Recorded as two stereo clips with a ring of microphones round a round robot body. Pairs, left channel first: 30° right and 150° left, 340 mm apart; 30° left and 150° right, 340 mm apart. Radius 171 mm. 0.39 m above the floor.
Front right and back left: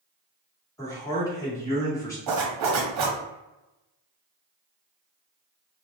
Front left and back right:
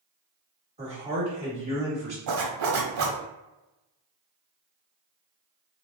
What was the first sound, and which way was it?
A man speaking, 100° right.